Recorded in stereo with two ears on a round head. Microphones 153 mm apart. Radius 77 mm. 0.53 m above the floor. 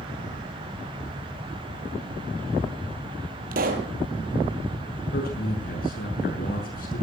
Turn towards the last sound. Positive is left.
turn(degrees=60)  # may be behind; listen again after turning